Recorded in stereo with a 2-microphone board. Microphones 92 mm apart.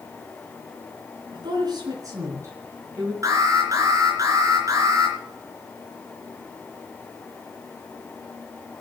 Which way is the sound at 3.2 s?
35° right (ahead or behind).